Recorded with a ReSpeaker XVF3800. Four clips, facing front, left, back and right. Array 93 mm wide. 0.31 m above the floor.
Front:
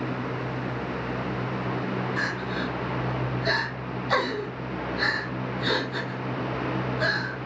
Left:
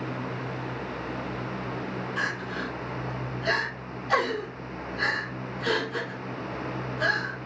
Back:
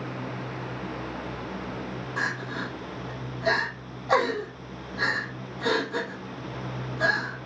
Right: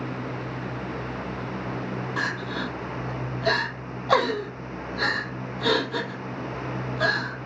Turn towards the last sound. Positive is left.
turn(degrees=-105)